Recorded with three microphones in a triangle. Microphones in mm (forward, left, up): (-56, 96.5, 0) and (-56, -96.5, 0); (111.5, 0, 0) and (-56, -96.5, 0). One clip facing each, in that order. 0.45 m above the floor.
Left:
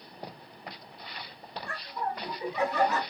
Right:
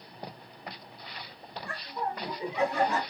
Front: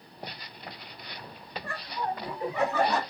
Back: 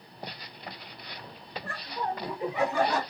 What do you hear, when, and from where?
1.6 s laughter: 155° right, 1.5 m; by 3.0 s 70° right, 1.4 m